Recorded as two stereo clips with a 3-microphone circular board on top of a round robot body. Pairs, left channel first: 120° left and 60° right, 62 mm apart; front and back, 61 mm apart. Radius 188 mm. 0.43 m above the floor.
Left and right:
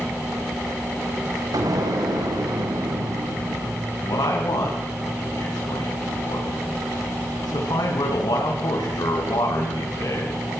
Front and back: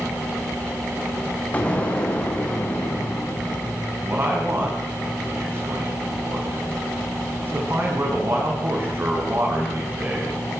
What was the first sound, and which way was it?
An explosion, 65° right.